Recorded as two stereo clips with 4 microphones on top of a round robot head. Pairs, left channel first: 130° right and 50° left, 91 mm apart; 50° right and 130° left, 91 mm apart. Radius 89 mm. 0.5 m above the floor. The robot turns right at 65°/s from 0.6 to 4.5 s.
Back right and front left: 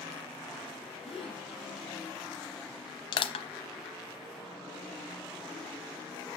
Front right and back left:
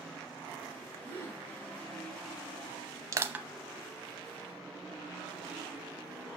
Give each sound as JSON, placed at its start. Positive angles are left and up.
{"t": 1.1, "sound": "a gasp", "azimuth_deg": -120, "distance_m": 4.0}
{"t": 3.1, "sound": "crushing", "azimuth_deg": -170, "distance_m": 0.7}